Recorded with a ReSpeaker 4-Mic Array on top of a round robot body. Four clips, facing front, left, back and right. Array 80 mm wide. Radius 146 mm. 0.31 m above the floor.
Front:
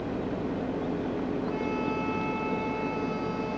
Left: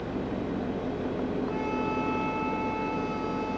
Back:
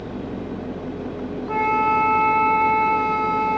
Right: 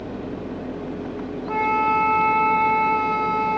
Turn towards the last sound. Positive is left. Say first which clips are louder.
# right 9 dB, back 10 dB
turn(degrees=-140)